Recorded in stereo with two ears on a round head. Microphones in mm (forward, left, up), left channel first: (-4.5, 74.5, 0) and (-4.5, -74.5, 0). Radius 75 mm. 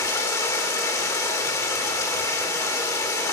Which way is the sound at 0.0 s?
20° left (ahead or behind).